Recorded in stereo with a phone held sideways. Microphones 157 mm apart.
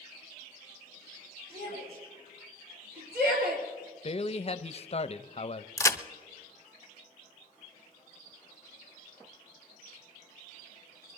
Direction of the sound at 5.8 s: 20° left (ahead or behind).